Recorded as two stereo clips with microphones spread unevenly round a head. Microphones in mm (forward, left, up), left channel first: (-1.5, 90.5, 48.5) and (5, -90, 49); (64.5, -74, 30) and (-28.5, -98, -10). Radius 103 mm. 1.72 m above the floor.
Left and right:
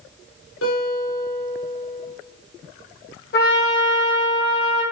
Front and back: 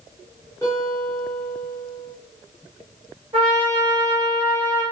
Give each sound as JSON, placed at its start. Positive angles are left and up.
{"t": 0.6, "sound": "a guitar", "azimuth_deg": 90, "distance_m": 4.5}
{"t": 3.3, "sound": "a trumpet", "azimuth_deg": 130, "distance_m": 6.5}